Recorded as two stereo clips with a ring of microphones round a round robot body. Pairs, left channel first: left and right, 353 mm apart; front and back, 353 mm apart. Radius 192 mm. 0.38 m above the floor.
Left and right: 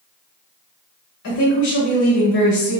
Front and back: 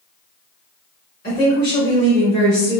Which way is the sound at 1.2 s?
60° left.